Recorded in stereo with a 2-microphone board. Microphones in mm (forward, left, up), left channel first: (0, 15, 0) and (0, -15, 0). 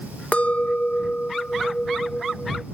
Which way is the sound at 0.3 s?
45° left (ahead or behind).